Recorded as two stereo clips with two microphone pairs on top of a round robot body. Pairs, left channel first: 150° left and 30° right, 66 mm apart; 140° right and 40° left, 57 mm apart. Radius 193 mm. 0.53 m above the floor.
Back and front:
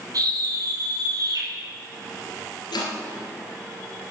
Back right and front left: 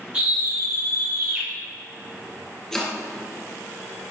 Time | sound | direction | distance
0.1 | a scream | 25° right | 3.5 m
2.7 | chopping | 140° left | 2.5 m